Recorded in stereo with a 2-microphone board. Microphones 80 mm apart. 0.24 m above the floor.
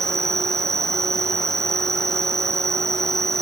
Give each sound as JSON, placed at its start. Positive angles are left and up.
{"t": 0.0, "sound": "an insect", "side_deg": -40}